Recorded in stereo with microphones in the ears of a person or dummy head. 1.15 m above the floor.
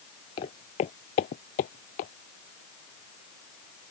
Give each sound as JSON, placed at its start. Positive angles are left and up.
{"t": 0.4, "sound": "footsteps", "side_deg": 20}